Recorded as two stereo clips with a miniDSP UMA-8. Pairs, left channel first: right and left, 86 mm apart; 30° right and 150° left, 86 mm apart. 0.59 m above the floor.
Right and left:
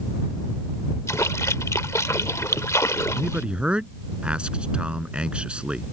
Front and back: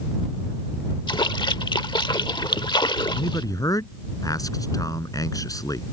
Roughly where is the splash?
Ahead right.